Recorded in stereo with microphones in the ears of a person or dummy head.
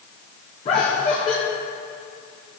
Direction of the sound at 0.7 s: 40° left (ahead or behind).